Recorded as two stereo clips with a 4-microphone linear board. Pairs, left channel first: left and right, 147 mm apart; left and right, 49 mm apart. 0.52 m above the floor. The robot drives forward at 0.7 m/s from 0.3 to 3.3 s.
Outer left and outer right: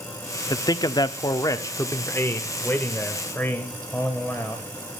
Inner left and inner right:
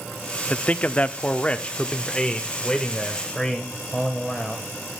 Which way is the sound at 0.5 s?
25° left (ahead or behind).